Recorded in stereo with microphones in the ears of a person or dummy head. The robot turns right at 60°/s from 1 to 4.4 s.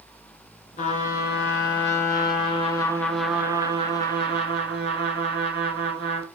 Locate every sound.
0.8 s a trumpet: 45° left, 2.5 m; by 6.3 s 110° right, 2.5 m